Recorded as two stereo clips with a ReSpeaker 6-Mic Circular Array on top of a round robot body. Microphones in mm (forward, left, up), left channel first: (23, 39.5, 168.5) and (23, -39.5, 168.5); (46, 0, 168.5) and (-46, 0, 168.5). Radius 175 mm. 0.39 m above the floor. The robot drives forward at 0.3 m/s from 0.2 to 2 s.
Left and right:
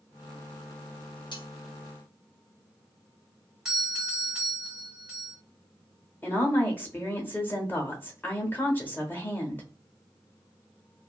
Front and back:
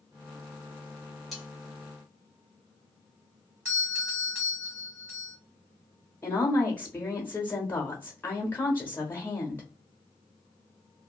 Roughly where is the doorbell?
Behind.